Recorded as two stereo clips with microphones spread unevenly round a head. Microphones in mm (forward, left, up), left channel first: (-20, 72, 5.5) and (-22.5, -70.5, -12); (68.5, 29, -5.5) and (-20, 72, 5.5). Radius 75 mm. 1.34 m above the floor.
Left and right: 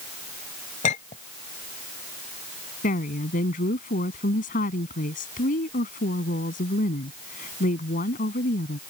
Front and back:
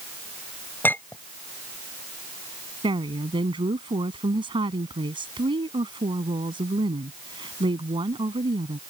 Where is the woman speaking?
120° left.